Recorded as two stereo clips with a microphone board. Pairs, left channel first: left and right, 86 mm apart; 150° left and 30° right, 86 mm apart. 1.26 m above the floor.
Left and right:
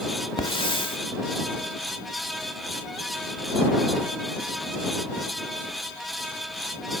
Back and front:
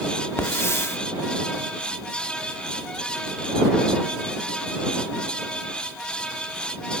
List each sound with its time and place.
0.4 s a hiss: 95° left